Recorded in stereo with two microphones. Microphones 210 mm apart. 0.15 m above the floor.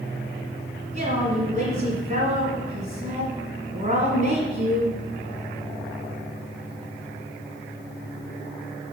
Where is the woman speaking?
35° right (ahead or behind), 1.9 m.